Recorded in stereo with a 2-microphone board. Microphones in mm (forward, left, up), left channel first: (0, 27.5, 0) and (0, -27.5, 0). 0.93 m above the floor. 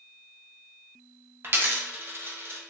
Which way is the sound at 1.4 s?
45° right (ahead or behind).